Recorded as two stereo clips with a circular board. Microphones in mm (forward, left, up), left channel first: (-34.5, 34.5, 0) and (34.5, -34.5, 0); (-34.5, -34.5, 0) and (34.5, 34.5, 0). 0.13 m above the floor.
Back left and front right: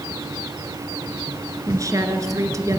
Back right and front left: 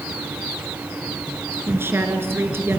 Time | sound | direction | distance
1.7 | a woman speaking | 10° right | 1.8 m